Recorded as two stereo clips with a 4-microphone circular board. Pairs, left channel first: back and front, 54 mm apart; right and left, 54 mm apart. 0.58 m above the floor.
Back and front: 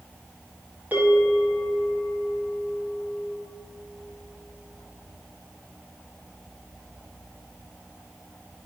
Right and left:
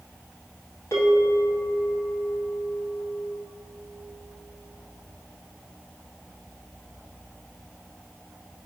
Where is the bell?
60° right, 1.7 m.